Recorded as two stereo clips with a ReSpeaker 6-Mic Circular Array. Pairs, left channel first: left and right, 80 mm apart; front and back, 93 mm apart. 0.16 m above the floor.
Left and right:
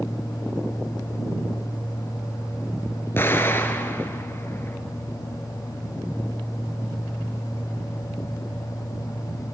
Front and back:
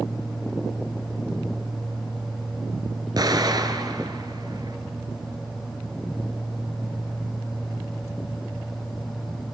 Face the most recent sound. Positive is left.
turn(degrees=145)